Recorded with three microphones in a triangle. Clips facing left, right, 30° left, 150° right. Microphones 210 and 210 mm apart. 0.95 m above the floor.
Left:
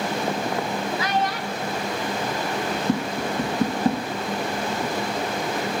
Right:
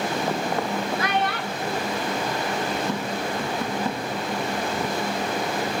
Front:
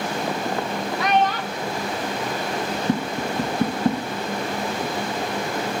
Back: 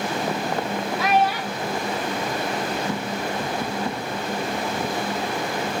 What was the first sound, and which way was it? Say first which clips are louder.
A child speaking: even, even; 60° right.